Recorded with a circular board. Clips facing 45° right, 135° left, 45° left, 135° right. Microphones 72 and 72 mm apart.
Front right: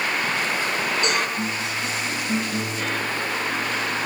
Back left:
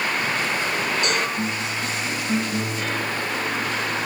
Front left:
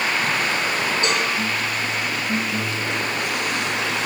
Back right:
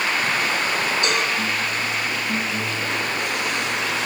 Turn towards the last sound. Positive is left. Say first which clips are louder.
# front right 1 dB, even
turn(degrees=-5)